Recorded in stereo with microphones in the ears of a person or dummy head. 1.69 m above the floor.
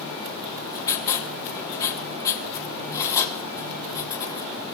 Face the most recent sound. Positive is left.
turn(degrees=15)  # may be behind; listen again after turning